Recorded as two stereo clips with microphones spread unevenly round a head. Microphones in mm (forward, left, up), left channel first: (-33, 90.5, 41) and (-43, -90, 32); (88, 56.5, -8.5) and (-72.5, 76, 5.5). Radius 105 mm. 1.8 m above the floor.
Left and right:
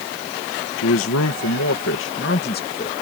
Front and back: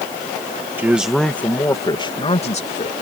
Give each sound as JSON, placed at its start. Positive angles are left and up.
{"t": 0.8, "sound": "a man speaking", "azimuth_deg": 95}